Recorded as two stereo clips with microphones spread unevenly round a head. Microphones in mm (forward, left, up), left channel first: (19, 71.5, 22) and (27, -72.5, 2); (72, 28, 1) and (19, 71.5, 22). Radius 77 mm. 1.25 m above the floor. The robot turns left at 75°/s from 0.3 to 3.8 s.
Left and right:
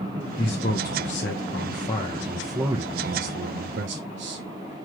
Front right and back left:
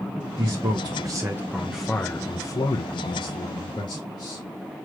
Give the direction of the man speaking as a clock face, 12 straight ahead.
7 o'clock.